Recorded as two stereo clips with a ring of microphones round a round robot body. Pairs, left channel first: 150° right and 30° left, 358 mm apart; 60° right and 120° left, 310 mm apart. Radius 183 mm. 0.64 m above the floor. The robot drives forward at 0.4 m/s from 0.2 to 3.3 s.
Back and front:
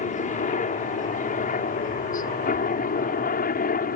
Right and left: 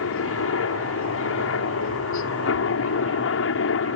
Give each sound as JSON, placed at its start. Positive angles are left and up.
{"t": 0.0, "sound": "a helicopter", "azimuth_deg": -90}